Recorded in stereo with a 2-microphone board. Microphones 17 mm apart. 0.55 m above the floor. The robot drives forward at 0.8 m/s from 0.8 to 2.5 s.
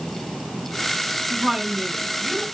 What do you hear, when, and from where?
1.3 s a woman speaking: 70° right (ahead or behind), 5.5 m; by 2.5 s 75° right (ahead or behind), 5 m